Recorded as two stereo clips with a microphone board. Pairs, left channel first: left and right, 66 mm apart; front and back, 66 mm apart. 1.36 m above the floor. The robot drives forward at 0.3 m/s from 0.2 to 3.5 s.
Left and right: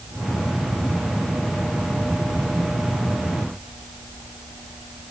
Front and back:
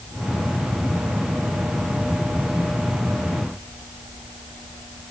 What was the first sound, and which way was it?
Only background noise.